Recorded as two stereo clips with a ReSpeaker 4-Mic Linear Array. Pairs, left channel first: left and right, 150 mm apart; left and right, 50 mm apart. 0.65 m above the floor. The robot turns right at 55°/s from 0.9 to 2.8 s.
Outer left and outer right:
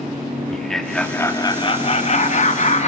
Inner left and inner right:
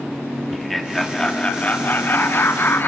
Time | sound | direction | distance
0.5 | laughter | 5° left | 0.8 m